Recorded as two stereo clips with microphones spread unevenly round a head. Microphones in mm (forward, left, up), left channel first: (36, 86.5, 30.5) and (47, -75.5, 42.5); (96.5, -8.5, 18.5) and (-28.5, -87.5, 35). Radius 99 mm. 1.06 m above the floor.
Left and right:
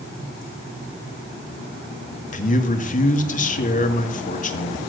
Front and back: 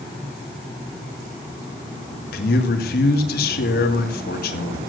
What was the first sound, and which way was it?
A man speaking, 55° left.